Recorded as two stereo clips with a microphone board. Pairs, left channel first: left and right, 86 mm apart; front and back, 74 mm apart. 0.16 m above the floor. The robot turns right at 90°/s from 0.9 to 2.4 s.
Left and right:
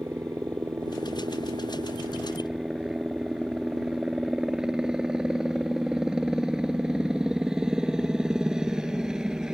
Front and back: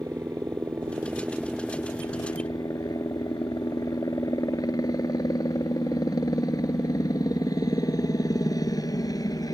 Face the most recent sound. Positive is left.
turn(degrees=-10)